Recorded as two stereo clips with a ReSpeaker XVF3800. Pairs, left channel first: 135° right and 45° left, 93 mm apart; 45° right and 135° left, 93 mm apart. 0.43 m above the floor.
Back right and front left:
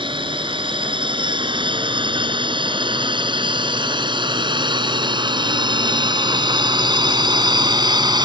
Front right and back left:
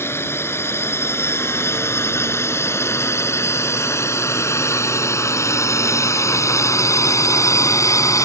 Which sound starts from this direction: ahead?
A drone, at 0.0 s.